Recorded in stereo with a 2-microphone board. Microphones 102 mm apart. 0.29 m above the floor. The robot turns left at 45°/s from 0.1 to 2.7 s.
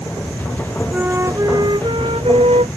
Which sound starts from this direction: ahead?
A flute, at 0.9 s.